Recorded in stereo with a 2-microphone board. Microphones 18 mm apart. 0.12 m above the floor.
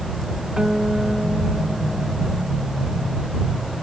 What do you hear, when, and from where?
0.6 s a guitar: 45° right (ahead or behind)